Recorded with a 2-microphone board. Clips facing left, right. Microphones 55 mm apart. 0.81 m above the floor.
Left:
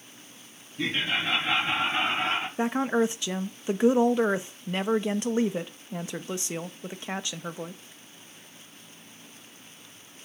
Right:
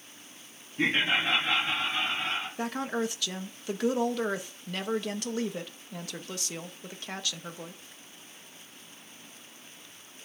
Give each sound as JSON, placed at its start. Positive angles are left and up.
{"t": 0.8, "sound": "laughter", "side_deg": -35, "distance_m": 1.2}
{"t": 2.6, "sound": "a woman speaking", "side_deg": 25, "distance_m": 0.8}